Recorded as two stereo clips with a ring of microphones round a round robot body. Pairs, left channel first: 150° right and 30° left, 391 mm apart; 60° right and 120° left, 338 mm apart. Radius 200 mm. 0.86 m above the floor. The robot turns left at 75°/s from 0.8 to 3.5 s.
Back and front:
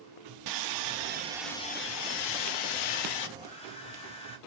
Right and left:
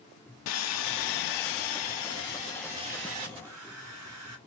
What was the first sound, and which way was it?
Sawing, 10° right.